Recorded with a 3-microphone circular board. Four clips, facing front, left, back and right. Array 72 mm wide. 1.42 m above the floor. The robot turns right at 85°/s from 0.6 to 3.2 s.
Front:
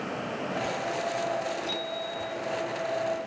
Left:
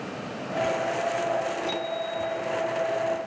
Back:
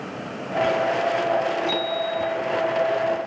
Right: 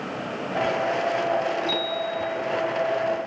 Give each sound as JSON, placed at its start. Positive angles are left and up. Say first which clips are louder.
{"t": 1.6, "sound": "a bicycle bell", "louder": "right 3 dB, back 9 dB", "azimuth_deg": -170, "distance_m": 8.5}